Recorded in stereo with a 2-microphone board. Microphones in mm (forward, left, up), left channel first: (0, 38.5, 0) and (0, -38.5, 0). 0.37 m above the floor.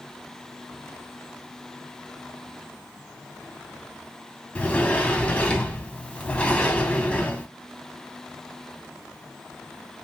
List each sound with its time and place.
4.5 s a sliding door: 15° left (ahead or behind), 0.5 m